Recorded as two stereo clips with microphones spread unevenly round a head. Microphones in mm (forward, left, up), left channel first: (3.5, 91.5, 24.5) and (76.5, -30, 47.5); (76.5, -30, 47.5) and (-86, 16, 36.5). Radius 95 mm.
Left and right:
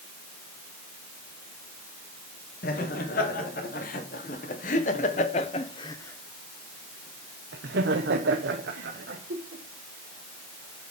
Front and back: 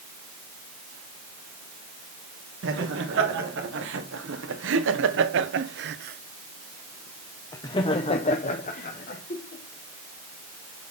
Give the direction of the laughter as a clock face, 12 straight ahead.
7 o'clock.